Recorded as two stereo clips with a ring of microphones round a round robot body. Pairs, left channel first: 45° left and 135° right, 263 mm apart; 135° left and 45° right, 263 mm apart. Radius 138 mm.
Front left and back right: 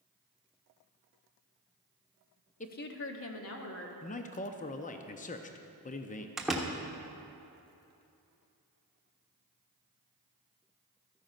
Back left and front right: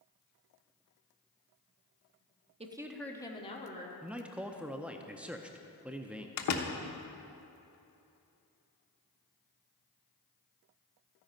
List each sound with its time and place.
2.6 s a woman speaking: 5° left, 0.9 m; by 3.9 s 75° left, 1.9 m
4.0 s a man speaking: 35° left, 0.6 m
6.4 s a door slam: 135° left, 1.1 m